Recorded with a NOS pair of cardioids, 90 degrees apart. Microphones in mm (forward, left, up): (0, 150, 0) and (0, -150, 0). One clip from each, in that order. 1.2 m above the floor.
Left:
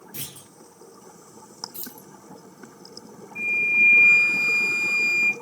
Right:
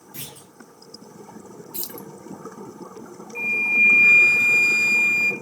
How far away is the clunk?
About 1.2 m.